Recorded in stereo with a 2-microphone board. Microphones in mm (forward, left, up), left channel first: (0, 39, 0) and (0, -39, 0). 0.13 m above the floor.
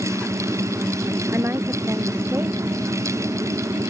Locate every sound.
1.3 s a woman speaking: 30° right (ahead or behind)